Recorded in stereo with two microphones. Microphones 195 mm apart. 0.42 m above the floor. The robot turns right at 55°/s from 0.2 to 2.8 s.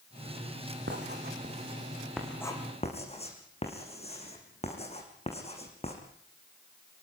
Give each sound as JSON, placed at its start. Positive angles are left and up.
{"t": 0.9, "sound": "writing", "side_deg": -75, "distance_m": 5.5}